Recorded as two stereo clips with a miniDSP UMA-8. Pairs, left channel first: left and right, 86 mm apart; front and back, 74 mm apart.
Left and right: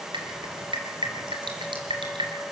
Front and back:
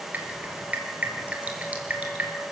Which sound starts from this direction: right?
Dripping, at 0.1 s.